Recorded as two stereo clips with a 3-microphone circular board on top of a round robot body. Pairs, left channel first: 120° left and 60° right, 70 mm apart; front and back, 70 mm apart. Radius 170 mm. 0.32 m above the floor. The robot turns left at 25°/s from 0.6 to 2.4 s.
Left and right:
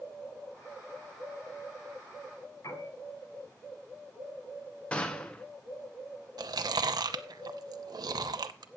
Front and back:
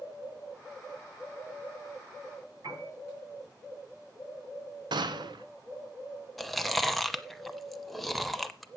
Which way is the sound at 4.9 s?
165° right.